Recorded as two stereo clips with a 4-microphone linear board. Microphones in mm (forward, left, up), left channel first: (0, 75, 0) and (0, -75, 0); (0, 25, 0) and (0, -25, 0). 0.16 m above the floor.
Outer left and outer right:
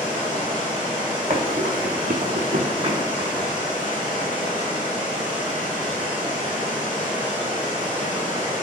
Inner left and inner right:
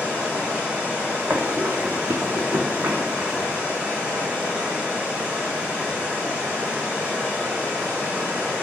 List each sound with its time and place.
0.0 s running water: 30° right (ahead or behind), 1.4 m
1.3 s running footsteps: 50° right (ahead or behind), 0.9 m; by 3.4 s 25° right (ahead or behind), 1.4 m